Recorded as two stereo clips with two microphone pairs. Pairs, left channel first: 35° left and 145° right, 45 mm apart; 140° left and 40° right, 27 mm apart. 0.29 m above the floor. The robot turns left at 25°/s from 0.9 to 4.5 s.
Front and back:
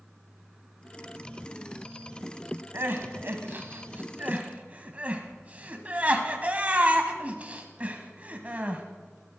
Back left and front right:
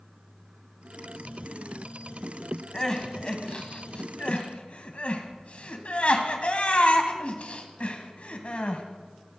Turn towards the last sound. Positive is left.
turn(degrees=160)